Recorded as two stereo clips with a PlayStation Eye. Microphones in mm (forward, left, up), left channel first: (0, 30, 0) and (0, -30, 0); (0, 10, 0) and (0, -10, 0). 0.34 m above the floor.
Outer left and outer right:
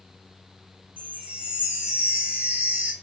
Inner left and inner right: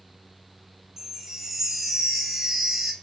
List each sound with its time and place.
1.0 s a chime: 20° right (ahead or behind), 1.8 m